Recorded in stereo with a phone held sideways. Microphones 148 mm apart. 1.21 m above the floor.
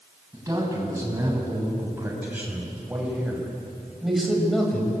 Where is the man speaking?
20° right (ahead or behind), 9 m; by 5.0 s 5° left (ahead or behind), 6 m.